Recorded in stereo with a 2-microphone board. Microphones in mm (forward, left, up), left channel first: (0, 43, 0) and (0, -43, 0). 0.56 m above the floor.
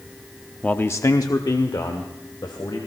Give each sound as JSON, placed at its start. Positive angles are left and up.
{"t": 0.6, "sound": "a man speaking", "side_deg": 15, "distance_m": 0.6}